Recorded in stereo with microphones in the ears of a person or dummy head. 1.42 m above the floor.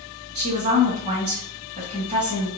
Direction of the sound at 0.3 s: 35° right (ahead or behind).